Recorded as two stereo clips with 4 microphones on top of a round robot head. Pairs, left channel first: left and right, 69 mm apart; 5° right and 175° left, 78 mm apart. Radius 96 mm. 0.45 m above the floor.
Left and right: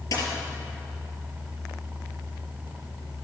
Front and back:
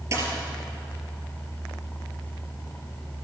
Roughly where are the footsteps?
No footsteps in this recording.